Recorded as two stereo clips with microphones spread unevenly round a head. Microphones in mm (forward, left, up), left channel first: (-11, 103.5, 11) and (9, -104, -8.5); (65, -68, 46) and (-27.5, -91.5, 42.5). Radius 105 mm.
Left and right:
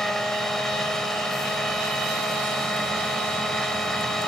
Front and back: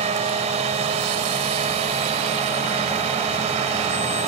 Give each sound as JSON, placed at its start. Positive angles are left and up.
{"t": 0.0, "sound": "a machine running", "azimuth_deg": -175}